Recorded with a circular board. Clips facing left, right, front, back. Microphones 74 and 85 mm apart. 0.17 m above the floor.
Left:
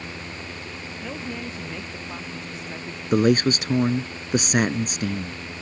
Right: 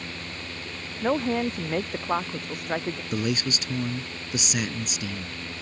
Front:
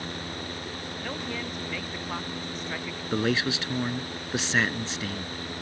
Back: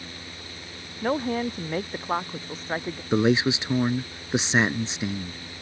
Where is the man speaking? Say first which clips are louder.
Left 11 dB, back 5 dB; 115° left.